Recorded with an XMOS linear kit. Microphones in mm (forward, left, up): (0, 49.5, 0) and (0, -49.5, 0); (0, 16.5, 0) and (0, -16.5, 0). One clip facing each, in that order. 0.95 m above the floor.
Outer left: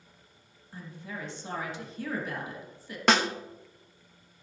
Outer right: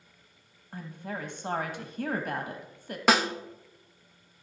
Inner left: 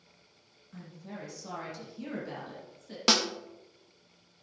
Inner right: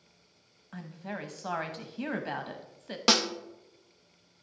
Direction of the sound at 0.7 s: 60° right (ahead or behind).